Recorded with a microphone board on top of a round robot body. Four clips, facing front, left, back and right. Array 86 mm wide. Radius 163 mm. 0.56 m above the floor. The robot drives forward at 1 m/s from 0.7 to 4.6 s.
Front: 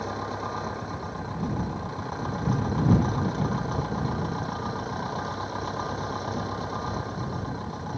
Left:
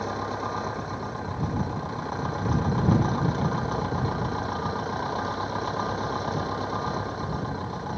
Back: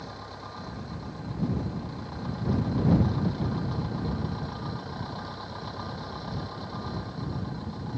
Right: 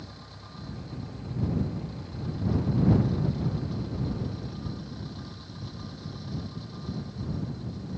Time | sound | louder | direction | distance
0.0 | an engine running | left 17 dB, front 9 dB | 60° left | ?